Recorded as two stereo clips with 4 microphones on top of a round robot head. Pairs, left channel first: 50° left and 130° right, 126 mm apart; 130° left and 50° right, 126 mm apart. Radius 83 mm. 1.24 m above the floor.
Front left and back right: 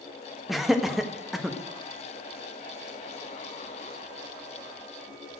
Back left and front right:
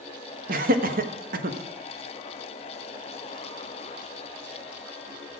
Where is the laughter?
45° right, 1.4 m.